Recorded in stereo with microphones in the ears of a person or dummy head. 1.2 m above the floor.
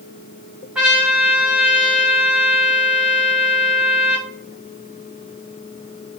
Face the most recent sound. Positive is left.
turn(degrees=-10)  # may be behind; listen again after turning